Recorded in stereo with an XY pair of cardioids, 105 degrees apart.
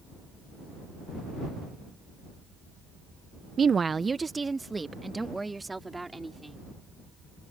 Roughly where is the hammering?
I don't hear hammering.